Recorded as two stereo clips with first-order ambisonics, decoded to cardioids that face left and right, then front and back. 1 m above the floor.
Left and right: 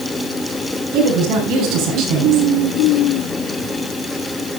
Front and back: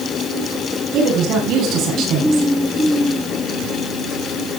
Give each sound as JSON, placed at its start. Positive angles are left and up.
{"t": 0.9, "sound": "a woman speaking", "azimuth_deg": -135, "distance_m": 9.5}